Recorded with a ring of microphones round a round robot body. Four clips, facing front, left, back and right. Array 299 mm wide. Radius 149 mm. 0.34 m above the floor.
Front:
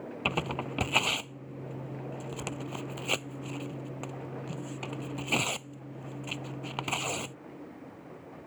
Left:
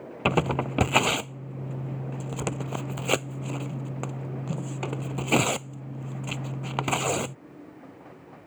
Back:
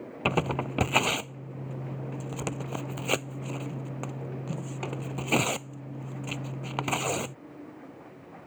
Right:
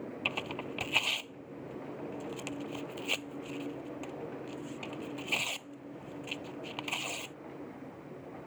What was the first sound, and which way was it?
Tearing paper, 110° left.